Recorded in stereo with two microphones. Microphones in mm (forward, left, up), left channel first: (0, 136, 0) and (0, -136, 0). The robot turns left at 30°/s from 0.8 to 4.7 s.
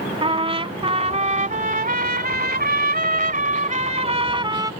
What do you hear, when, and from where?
0.2 s a trumpet: 40° right; by 4.7 s 155° right